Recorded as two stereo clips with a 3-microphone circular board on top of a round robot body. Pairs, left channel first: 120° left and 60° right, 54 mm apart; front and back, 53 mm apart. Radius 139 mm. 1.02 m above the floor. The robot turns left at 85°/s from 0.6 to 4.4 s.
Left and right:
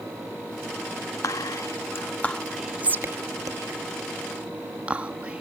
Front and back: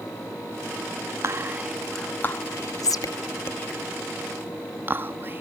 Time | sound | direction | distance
1.2 | whispering | 140° left | ?